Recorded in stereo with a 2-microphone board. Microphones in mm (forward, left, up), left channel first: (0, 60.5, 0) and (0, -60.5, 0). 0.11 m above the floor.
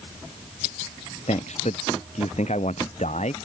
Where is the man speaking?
80° left.